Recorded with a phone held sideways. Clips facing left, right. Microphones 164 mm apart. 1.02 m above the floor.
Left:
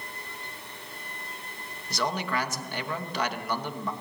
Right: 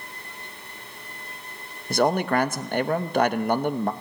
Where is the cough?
No cough in this recording.